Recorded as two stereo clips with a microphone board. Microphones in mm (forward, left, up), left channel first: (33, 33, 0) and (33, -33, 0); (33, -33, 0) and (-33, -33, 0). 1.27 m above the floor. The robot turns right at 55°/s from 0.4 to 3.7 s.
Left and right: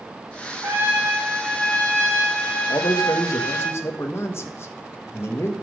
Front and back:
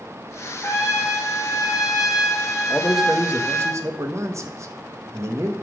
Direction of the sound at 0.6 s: 45° right.